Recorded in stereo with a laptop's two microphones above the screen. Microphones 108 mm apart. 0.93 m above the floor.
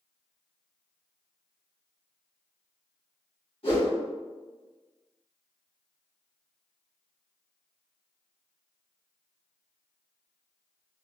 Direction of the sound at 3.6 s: 50° left (ahead or behind).